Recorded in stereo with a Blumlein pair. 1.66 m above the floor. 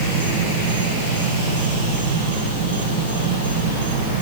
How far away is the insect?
About 2.5 m.